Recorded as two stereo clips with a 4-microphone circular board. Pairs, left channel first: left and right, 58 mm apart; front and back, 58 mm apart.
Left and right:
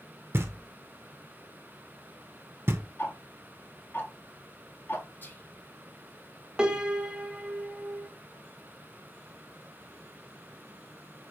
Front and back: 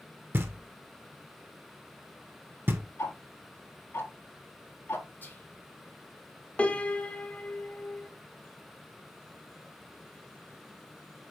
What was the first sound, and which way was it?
Knocking, 135° right.